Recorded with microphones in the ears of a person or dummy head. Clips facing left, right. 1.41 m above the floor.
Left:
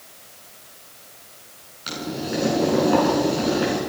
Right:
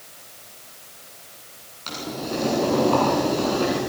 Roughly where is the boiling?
Centre.